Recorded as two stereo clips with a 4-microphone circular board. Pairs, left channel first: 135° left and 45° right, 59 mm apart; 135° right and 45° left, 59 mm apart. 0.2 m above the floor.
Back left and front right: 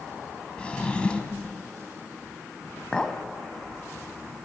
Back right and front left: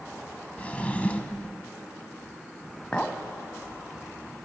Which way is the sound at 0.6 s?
175° right.